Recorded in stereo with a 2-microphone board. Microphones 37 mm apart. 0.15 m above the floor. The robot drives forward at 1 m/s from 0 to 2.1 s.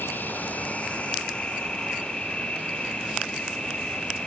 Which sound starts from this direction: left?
An insect, at 0.0 s.